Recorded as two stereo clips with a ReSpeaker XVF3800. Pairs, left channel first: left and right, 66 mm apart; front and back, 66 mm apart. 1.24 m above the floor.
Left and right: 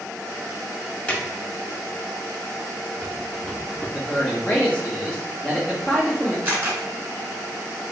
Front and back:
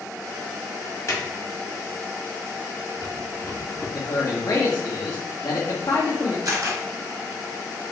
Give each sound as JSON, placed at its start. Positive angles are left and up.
{"t": 1.1, "sound": "a drawer", "azimuth_deg": 25, "distance_m": 1.6}
{"t": 3.9, "sound": "a man speaking", "azimuth_deg": 20, "distance_m": 1.6}
{"t": 6.5, "sound": "a camera shutter", "azimuth_deg": -150, "distance_m": 2.0}